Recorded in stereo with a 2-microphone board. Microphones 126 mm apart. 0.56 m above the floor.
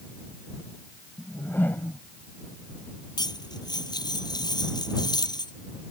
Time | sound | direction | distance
1.2 | a whoosh | 15° left (ahead or behind) | ?
3.2 | cutlery clinking | 35° left (ahead or behind) | ?